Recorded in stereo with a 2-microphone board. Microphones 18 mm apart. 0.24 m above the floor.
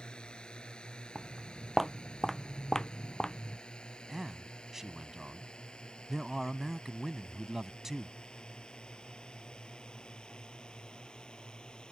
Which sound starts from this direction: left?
A drone, at 0.0 s.